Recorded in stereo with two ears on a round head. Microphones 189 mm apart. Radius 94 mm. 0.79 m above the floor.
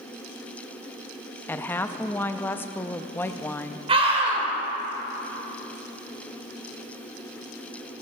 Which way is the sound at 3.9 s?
30° right (ahead or behind).